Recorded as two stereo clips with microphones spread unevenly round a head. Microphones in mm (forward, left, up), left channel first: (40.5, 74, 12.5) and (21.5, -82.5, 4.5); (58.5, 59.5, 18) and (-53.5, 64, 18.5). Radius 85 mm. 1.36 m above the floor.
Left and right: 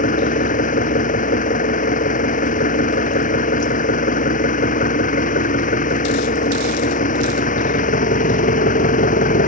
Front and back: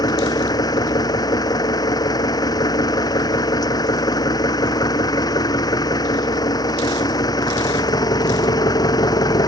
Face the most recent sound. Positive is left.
turn(degrees=50)